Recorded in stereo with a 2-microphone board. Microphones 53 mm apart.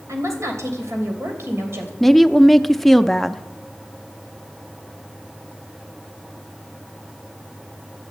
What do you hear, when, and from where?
0.1 s a woman speaking: 75° right (ahead or behind), 3 m; by 1.9 s 50° right (ahead or behind), 3 m
2.0 s a woman speaking: 5° left (ahead or behind), 0.5 m